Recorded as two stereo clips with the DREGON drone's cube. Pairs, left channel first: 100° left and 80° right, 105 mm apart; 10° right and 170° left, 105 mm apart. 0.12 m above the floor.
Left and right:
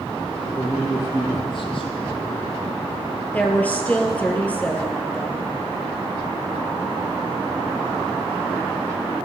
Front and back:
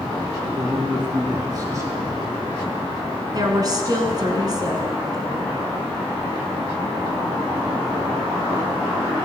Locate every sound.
0.6 s a man speaking: 145° left, 3 m; by 2.5 s 95° left, 2.5 m
3.3 s a woman speaking: 165° left, 1.3 m